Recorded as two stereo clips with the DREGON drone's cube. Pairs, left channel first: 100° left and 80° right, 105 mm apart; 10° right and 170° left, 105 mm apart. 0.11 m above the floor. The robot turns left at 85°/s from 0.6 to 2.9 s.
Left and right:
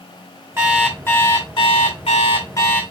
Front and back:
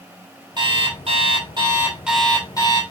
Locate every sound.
0.6 s an alarm clock: 150° right, 3.5 m; by 2.8 s 25° left, 3.5 m